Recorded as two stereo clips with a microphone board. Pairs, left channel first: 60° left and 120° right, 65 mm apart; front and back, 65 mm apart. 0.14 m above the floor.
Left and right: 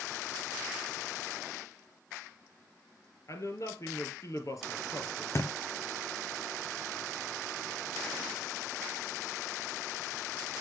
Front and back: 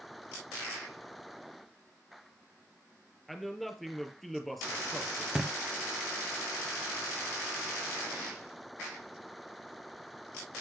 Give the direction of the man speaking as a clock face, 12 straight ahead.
9 o'clock.